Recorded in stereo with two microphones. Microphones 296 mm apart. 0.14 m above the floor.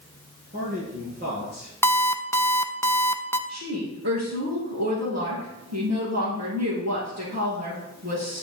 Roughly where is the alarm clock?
Centre.